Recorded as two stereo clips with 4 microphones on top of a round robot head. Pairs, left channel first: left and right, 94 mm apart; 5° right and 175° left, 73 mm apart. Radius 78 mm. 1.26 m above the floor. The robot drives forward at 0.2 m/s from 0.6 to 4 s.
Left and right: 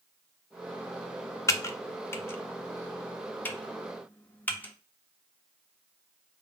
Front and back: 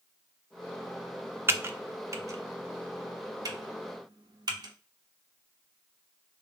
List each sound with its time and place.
1.5 s typing on a keyboard: 135° left, 0.5 m; by 4.7 s 160° left, 0.9 m